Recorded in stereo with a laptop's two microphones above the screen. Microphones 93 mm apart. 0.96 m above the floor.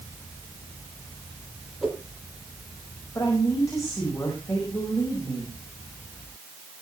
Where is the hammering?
No hammering in this recording.